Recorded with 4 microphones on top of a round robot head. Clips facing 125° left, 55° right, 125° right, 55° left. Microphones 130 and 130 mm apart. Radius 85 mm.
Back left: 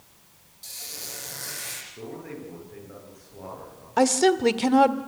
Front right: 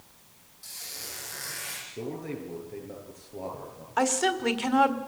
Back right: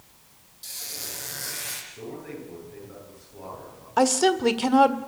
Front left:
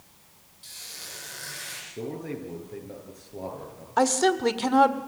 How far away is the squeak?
About 8.5 m.